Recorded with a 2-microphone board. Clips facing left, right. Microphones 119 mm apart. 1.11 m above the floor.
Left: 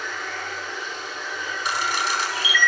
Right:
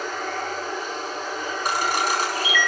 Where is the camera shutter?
45° right (ahead or behind), 3.5 m.